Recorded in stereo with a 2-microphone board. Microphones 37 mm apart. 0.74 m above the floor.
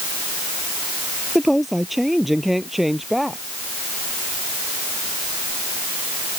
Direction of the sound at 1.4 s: Centre (ahead or behind).